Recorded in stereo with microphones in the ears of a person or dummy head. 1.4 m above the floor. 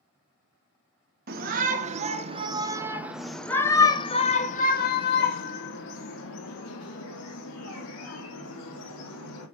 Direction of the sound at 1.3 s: 45° right (ahead or behind).